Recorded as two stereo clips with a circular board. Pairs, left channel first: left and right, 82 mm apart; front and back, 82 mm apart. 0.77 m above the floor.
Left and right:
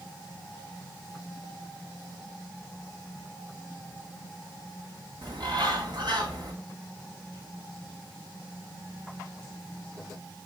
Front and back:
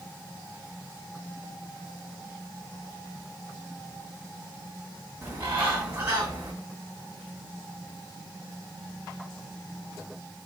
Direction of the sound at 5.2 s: 120° right.